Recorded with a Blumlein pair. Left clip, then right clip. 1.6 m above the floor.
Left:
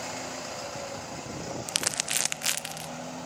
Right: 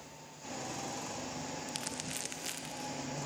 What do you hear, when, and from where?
1.7 s crumpling: 60° left, 0.5 m